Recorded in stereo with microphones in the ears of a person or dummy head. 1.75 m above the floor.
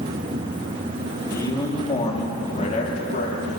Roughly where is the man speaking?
Centre.